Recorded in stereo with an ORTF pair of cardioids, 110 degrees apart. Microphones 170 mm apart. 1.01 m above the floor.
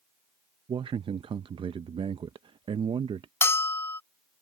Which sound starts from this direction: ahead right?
A man speaking, at 0.7 s.